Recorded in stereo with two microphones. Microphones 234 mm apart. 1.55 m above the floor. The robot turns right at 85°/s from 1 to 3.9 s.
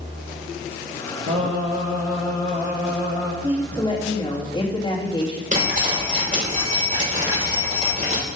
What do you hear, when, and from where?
1.3 s singing: 80° right, 5.5 m; by 3.3 s 95° left, 5.5 m
3.4 s a woman speaking: 20° right, 2.5 m; by 5.4 s 20° left, 2.5 m
5.5 s dripping: 35° right (ahead or behind), 6 m